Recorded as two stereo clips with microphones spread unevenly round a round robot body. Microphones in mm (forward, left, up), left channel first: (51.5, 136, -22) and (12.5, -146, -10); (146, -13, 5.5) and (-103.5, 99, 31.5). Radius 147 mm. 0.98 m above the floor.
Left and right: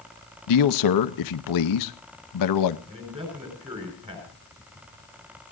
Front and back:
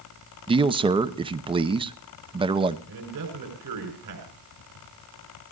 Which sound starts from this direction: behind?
A man speaking, at 2.9 s.